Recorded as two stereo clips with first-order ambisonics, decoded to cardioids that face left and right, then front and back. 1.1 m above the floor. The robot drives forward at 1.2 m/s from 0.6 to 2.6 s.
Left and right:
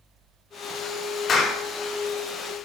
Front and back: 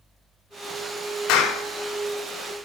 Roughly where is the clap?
Ahead left.